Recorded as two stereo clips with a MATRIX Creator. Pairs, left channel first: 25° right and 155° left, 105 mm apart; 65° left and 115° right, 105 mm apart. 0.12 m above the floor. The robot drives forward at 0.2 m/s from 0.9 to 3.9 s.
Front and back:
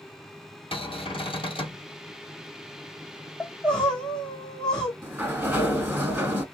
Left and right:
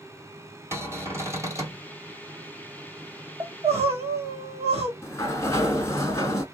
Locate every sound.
0.7 s a cupboard door: 50° right, 1.5 m; by 1.8 s 55° right, 1.4 m
3.4 s crying: 100° right, 1.3 m; by 4.9 s 105° right, 1.3 m
5.0 s a sliding door: 105° left, 0.8 m